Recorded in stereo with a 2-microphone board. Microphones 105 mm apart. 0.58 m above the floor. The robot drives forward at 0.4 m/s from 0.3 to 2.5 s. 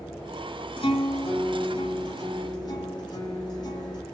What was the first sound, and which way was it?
A guitar, 60° left (ahead or behind).